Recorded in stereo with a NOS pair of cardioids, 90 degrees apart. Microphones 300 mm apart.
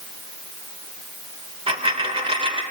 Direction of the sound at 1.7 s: 20° right.